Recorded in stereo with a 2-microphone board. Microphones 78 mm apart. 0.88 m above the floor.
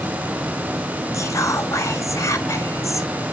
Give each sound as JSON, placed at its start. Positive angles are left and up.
{"t": 1.1, "sound": "whispering", "side_deg": 40, "distance_m": 1.1}